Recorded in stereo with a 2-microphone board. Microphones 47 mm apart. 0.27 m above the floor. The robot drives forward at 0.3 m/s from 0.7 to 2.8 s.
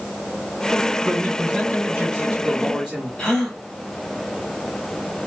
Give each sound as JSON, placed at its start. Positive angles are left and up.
{"t": 1.0, "sound": "a man speaking", "side_deg": -15, "distance_m": 2.5}
{"t": 3.2, "sound": "a gasp", "side_deg": 10, "distance_m": 1.5}